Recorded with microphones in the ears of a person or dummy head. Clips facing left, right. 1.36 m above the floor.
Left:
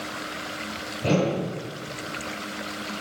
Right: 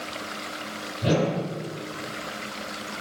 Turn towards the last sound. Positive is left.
turn(degrees=-15)  # may be behind; listen again after turning